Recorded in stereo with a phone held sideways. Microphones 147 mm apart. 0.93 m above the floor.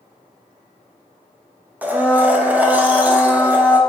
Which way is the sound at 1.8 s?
10° right (ahead or behind).